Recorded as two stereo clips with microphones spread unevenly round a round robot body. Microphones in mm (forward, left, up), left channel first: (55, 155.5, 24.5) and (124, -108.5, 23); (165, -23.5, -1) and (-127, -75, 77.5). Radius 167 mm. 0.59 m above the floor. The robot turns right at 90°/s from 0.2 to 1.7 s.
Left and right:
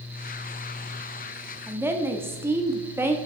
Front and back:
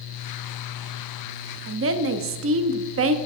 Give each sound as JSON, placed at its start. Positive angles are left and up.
{"t": 1.7, "sound": "a woman speaking", "azimuth_deg": -150, "distance_m": 0.8}